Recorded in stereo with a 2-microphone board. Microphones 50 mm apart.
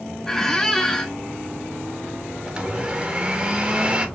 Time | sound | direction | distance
0.3 | a squeak | 10° left (ahead or behind) | 0.6 m
2.5 | a blender | 20° right (ahead or behind) | 0.7 m